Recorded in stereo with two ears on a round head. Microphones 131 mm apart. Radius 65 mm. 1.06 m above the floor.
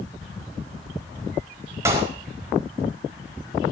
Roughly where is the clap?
Centre.